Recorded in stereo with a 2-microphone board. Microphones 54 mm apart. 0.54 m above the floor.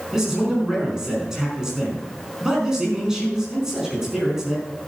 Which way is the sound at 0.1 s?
10° right (ahead or behind).